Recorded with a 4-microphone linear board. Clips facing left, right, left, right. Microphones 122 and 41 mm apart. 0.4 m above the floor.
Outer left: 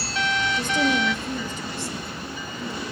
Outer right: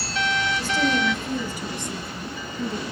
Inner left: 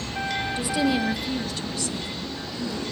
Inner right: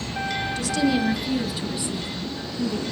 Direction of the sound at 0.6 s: 25° left (ahead or behind).